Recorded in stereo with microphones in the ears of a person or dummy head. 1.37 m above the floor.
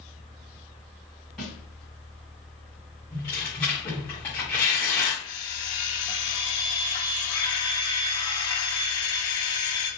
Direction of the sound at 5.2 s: 15° left (ahead or behind).